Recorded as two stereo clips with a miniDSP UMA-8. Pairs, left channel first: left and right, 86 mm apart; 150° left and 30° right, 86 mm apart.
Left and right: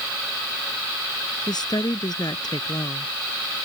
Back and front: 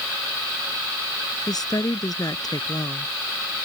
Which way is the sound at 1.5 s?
115° left.